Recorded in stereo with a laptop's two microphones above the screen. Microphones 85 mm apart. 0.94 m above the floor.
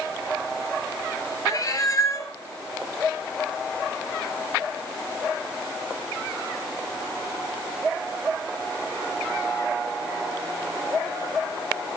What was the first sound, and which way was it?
A cat meowing, 40° left (ahead or behind).